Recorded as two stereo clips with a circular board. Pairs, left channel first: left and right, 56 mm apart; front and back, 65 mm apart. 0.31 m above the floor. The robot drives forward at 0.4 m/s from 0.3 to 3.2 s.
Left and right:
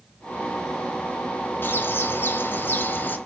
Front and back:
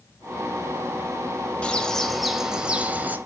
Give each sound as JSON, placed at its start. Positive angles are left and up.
{"t": 1.6, "sound": "a bird", "azimuth_deg": 65, "distance_m": 0.8}